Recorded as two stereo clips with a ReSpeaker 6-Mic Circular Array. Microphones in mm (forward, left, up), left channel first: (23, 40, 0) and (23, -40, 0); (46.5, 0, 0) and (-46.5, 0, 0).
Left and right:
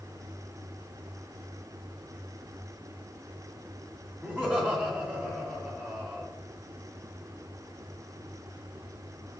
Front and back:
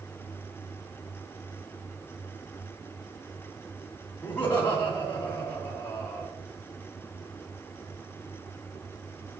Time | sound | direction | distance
4.2 | laughter | 40° right | 1.8 m